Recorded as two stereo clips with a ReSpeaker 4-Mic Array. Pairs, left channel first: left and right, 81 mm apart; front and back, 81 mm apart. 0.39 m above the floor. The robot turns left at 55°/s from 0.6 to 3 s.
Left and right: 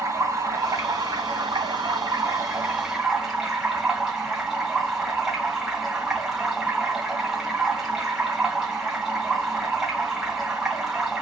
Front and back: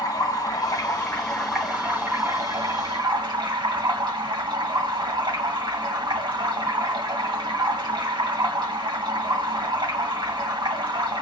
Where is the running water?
40° right, 2 m; by 11.2 s 170° right, 2 m.